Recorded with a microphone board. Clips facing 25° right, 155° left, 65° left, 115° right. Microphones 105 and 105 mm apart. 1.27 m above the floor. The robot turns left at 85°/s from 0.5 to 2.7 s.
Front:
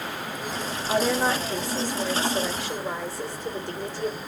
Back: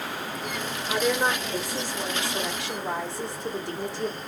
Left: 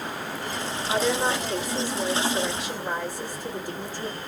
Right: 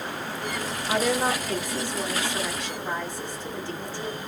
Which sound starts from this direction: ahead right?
A woman speaking, at 0.9 s.